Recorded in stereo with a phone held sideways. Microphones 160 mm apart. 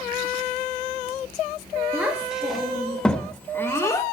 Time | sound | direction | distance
1.9 | a child speaking | 10° right (ahead or behind) | 2.5 m